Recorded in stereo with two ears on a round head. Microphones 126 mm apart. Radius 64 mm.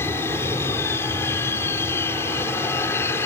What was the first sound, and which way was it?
An aircraft, 15° left (ahead or behind).